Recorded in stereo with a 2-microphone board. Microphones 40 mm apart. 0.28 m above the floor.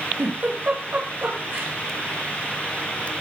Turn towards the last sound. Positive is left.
turn(degrees=-50)  # may be behind; listen again after turning